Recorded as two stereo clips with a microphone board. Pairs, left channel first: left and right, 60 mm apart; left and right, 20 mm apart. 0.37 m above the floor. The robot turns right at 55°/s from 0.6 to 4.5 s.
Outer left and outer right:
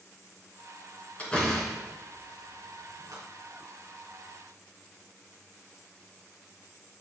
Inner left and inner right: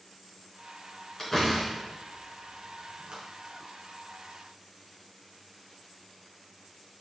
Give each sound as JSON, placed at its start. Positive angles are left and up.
{"t": 1.2, "sound": "a door slam", "side_deg": 25, "distance_m": 3.5}